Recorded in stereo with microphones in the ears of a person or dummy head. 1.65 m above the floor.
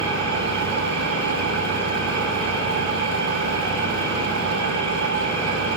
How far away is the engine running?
About 5.5 m.